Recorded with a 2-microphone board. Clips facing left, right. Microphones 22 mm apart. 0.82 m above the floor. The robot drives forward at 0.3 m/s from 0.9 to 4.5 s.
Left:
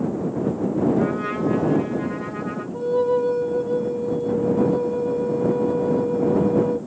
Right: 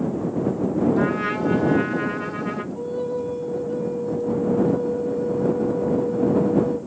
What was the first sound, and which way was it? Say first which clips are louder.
A trumpet: right 1 dB; 70° right (ahead or behind).